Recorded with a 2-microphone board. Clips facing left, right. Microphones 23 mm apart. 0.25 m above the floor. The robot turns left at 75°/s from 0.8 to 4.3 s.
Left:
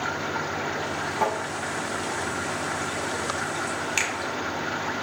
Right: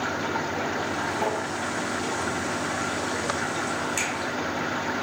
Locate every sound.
1.2 s tapping: 75° left (ahead or behind), 3 m; by 1.4 s 85° left, 3 m
4.0 s a finger snap: 40° left (ahead or behind), 1.5 m